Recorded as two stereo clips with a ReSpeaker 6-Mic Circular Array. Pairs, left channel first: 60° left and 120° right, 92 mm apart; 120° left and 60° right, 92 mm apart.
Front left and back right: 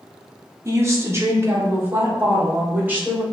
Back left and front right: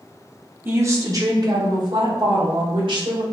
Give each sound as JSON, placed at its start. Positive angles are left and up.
{"t": 0.7, "sound": "a woman speaking", "azimuth_deg": -95, "distance_m": 0.8}